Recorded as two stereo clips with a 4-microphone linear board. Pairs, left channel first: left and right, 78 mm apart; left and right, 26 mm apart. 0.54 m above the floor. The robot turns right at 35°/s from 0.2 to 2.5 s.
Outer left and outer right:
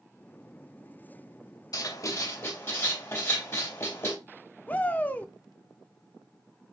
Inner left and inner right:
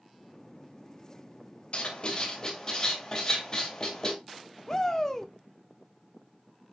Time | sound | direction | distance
1.7 | writing | 60° left (ahead or behind) | 3.5 m
4.7 | a shout | 20° left (ahead or behind) | 1.0 m